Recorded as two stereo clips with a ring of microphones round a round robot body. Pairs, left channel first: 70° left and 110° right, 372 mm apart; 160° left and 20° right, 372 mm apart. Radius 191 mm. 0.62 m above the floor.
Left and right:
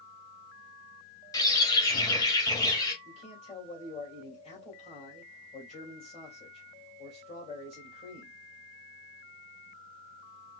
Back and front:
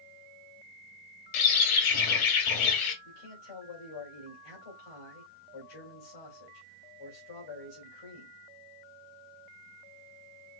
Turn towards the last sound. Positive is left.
turn(degrees=140)